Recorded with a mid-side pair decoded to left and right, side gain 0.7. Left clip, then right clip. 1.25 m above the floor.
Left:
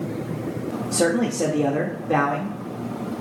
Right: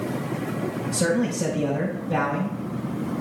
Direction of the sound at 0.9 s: 60° left.